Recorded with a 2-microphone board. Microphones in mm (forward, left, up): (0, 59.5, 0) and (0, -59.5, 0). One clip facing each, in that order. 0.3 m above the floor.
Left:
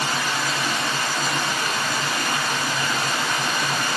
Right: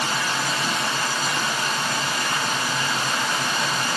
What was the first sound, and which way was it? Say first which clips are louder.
Running water: even; 70° left (ahead or behind).